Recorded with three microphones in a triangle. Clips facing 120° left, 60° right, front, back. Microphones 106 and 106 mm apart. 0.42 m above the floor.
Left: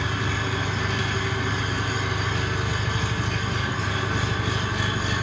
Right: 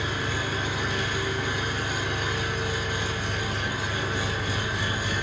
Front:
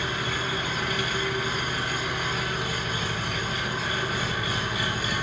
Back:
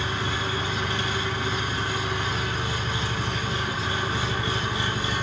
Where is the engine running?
120° left, 1.5 m.